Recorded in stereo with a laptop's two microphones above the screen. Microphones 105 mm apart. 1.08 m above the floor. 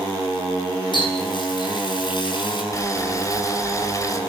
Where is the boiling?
35° left (ahead or behind), 4 m.